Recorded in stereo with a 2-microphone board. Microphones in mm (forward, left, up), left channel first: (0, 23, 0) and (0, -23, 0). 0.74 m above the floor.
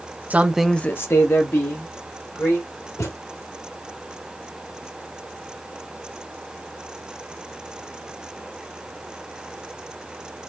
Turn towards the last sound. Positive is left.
turn(degrees=80)